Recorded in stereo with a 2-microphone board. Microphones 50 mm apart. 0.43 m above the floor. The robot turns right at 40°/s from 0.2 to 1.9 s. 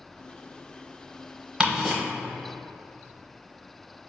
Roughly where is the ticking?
Right.